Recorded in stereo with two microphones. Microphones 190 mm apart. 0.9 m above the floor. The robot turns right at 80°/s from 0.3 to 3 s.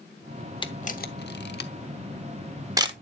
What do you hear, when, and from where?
0.6 s a camera shutter: 25° left (ahead or behind), 0.8 m; by 2.9 s 30° right (ahead or behind), 0.8 m